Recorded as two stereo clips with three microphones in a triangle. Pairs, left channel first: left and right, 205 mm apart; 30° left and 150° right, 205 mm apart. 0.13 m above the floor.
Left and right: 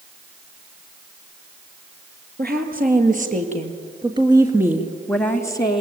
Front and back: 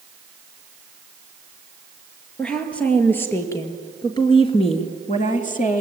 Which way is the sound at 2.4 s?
55° right.